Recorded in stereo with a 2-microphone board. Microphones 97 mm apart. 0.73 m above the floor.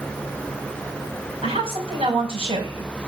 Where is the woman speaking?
80° right, 4.5 m.